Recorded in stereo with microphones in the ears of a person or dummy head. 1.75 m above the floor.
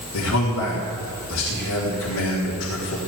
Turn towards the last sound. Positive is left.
turn(degrees=85)